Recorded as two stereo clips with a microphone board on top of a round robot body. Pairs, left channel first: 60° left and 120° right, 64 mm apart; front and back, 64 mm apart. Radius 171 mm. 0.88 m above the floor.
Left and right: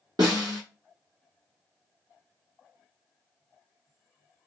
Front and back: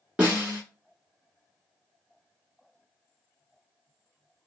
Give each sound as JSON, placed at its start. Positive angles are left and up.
{"t": 0.2, "sound": "a snare drum", "azimuth_deg": -110, "distance_m": 0.5}